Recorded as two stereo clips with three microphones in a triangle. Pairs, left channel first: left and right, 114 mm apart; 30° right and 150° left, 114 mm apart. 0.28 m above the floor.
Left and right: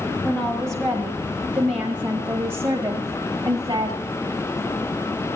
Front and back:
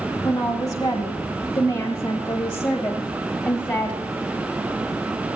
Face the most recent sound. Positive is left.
turn(degrees=-90)